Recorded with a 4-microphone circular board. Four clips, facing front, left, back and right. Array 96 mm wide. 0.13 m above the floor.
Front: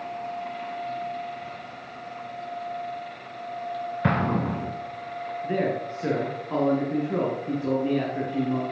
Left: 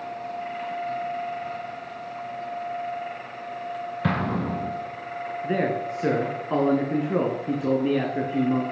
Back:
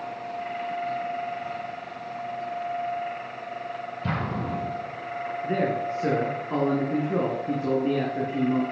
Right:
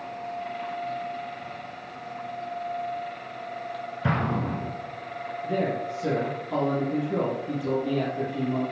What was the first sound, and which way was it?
An explosion, 20° left.